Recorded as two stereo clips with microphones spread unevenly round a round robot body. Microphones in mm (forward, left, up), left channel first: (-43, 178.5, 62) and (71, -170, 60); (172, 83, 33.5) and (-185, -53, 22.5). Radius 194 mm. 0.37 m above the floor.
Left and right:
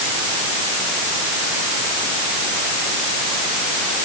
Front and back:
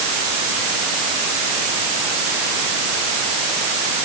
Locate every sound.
Only background noise.